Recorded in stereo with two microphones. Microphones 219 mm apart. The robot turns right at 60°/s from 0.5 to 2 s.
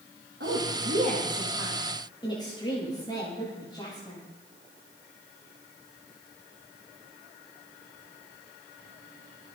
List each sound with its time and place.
0.4 s a woman speaking: 70° right (ahead or behind), 9 m; by 4.2 s 20° left (ahead or behind), 9 m